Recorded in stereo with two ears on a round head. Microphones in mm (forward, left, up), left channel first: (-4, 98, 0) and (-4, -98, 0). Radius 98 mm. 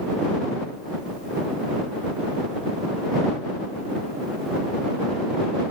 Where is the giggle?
I don't hear a giggle.